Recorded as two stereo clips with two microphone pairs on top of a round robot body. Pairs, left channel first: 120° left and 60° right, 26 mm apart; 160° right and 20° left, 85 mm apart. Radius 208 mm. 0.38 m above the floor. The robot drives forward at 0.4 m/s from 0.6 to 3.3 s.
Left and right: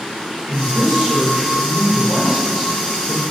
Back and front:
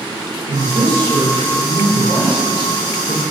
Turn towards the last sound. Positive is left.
turn(degrees=15)